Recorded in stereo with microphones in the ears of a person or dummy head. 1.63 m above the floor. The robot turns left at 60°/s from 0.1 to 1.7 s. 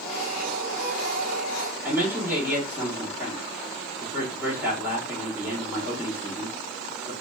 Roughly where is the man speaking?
Centre.